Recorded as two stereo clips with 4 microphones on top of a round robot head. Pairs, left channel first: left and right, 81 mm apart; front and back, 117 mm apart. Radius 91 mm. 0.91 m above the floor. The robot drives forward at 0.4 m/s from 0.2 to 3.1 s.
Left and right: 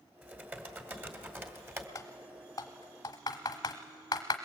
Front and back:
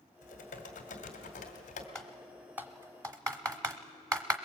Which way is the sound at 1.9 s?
75° left.